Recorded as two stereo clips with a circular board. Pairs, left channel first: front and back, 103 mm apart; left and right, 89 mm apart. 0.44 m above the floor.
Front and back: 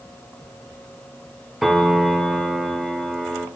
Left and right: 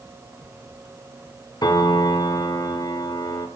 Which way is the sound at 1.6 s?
95° left.